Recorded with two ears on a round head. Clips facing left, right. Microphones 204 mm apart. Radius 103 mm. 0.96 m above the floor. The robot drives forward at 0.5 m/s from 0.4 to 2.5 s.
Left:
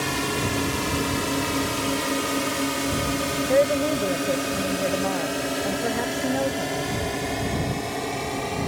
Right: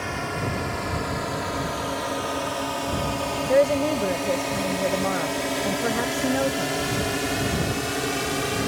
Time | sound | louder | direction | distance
0.0 | a drone | left 3 dB | 50° left (ahead or behind) | ?
3.5 | a woman speaking | right 1 dB | 5° right (ahead or behind) | ?